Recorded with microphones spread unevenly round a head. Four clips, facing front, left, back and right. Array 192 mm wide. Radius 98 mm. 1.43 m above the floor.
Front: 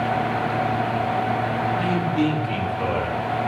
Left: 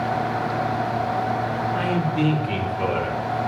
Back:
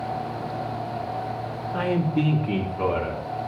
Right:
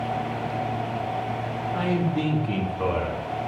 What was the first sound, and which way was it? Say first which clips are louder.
A man speaking: right 1 dB, back 3 dB; 150° right.